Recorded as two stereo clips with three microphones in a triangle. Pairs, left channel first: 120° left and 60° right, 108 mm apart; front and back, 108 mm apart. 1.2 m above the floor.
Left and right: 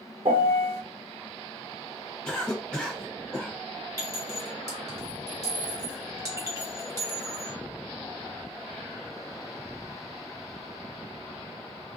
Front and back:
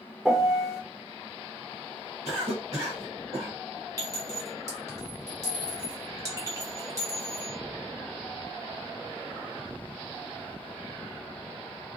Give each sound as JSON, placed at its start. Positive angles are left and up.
{"t": 0.2, "sound": "a piano", "azimuth_deg": -95, "distance_m": 0.8}
{"t": 2.2, "sound": "a cough", "azimuth_deg": -160, "distance_m": 1.1}
{"t": 4.0, "sound": "a clink", "azimuth_deg": -115, "distance_m": 1.3}